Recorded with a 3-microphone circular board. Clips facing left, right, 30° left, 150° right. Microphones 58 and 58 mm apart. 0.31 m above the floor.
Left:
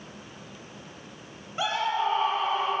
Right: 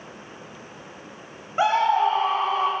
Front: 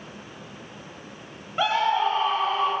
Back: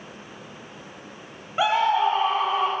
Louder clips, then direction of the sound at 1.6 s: Right 8 dB, back 2 dB; 70° right.